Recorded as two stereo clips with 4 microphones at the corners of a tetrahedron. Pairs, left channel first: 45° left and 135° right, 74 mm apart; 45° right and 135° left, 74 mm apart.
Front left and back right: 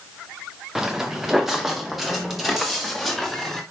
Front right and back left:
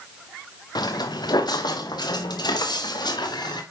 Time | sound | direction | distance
0.8 | footsteps | 50° right | 1.4 m